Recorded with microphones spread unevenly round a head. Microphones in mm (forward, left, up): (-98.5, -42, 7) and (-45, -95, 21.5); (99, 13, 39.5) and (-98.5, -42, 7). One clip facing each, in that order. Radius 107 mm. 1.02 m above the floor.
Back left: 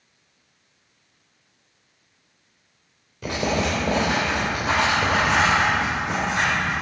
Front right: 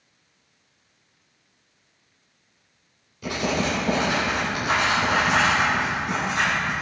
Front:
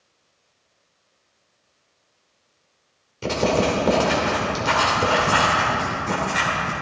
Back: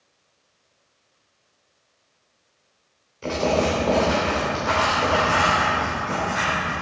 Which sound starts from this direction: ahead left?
Writing, at 3.2 s.